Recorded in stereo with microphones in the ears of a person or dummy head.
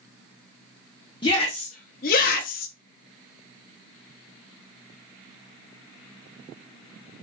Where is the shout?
30° left (ahead or behind), 0.8 m; by 2.7 s 45° left (ahead or behind), 0.8 m.